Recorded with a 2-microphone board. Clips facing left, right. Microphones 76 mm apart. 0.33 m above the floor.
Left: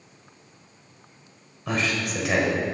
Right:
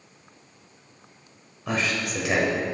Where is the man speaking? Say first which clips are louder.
Even; centre (ahead or behind), 1.4 m.